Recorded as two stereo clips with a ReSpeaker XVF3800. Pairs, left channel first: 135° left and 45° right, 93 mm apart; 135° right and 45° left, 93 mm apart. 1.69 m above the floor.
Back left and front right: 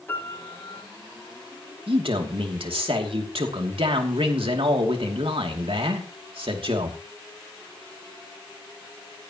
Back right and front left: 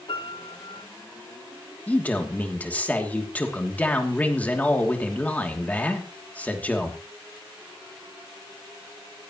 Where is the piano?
160° right, 4.5 m.